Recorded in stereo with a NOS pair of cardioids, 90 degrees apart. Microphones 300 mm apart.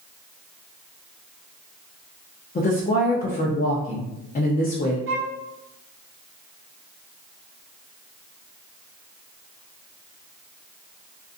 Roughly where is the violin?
Ahead right.